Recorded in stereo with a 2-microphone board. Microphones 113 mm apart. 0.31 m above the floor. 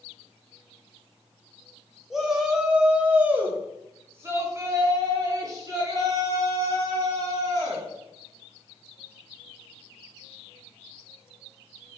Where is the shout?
Centre (ahead or behind), 1.7 m; by 7.9 s 35° right (ahead or behind), 2.5 m.